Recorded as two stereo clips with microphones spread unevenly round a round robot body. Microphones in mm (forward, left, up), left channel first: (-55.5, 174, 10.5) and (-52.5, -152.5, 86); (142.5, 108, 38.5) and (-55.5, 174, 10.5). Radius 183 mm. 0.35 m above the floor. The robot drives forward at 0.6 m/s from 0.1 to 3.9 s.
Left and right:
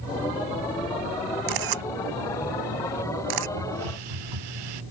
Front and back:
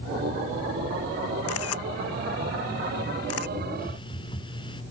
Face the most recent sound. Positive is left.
turn(degrees=-95)